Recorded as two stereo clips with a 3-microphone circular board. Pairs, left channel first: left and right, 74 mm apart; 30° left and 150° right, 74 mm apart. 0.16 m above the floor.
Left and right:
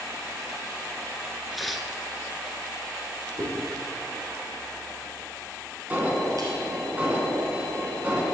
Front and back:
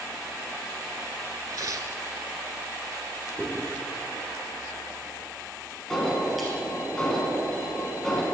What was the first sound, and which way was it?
Tearing paper, straight behind.